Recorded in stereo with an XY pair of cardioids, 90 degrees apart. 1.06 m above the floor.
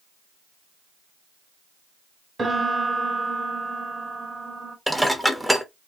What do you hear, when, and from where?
2.4 s a piano: 35° right, 1.4 m
4.9 s dishes clattering: straight ahead, 0.8 m